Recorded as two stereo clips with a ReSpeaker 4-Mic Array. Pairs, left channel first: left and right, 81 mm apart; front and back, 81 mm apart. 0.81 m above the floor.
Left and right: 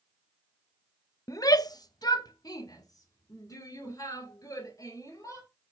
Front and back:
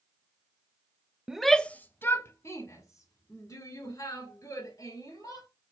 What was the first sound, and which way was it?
A shout, 105° left.